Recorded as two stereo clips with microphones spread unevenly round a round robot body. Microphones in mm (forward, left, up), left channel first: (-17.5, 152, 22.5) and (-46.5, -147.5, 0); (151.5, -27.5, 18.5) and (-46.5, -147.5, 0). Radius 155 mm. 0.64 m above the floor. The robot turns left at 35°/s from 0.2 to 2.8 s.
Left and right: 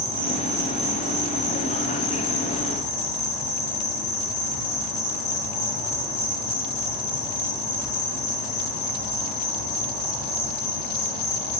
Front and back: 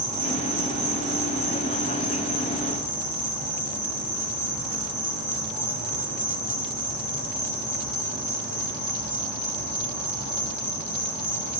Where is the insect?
165° right, 0.8 m; by 11.6 s 105° left, 0.8 m.